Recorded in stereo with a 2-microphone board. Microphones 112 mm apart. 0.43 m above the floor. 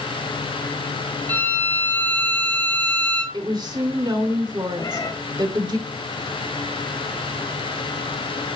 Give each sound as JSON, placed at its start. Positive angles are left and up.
{"t": 1.3, "sound": "a violin", "side_deg": 15, "distance_m": 2.5}
{"t": 3.3, "sound": "a woman speaking", "side_deg": -35, "distance_m": 1.0}
{"t": 4.8, "sound": "a cat meowing", "side_deg": 30, "distance_m": 0.8}